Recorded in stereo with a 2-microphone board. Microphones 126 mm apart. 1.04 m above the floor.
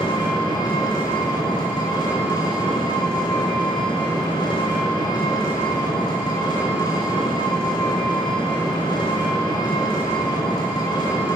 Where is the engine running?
35° left (ahead or behind), 1.4 m.